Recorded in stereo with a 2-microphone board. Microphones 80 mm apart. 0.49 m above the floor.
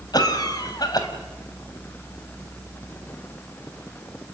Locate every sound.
0.1 s a cough: 55° left (ahead or behind), 3.5 m